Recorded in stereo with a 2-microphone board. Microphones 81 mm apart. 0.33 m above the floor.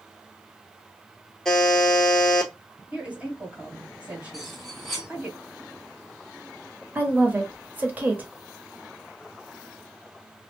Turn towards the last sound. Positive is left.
turn(degrees=-25)  # may be behind; listen again after turning